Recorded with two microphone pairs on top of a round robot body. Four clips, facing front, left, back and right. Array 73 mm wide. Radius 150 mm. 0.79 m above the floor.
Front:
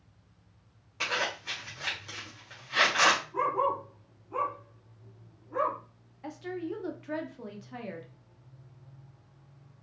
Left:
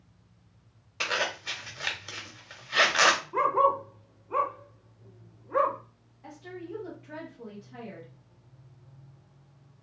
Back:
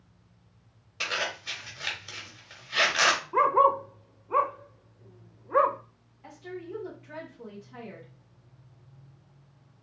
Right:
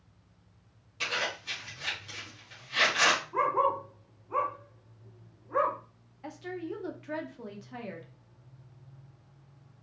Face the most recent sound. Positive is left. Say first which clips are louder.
# right 4 dB, front 4 dB
turn(degrees=-60)